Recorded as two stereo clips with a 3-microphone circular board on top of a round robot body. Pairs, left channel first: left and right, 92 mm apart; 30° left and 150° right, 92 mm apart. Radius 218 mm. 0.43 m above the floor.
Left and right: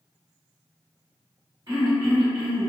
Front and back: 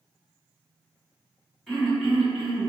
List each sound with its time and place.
1.7 s throat clearing: 60° right, 1.9 m